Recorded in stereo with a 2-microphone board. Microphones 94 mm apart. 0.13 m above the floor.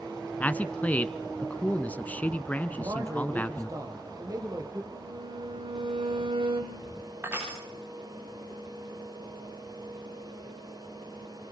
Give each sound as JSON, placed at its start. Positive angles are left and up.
{"t": 0.4, "sound": "a man speaking", "side_deg": 15, "distance_m": 1.1}
{"t": 2.7, "sound": "a man speaking", "side_deg": -40, "distance_m": 4.5}
{"t": 4.9, "sound": "a violin", "side_deg": -70, "distance_m": 2.5}
{"t": 7.2, "sound": "crushing", "side_deg": -25, "distance_m": 9.5}